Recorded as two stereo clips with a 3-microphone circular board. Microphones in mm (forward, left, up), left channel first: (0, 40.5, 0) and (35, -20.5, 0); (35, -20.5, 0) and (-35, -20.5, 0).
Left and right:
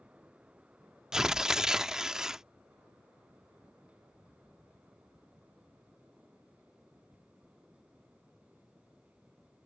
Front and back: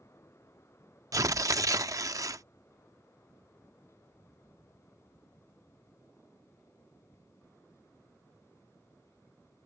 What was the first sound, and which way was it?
Tearing paper, 140° right.